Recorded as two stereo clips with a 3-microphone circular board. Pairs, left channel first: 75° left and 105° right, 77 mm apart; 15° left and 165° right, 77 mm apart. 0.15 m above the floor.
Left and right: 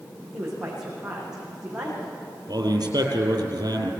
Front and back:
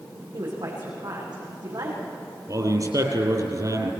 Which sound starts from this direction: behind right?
A man speaking, at 2.5 s.